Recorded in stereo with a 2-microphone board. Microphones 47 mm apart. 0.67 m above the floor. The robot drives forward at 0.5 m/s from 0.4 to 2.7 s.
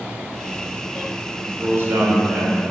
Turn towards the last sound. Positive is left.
turn(degrees=-55)  # may be behind; listen again after turning